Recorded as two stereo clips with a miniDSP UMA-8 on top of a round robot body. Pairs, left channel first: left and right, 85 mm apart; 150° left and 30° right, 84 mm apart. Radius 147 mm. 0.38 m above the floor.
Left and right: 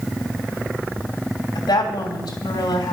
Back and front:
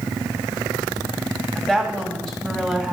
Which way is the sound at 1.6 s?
65° left.